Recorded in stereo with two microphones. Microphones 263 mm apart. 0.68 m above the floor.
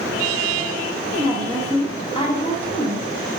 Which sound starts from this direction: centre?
A woman speaking, at 1.1 s.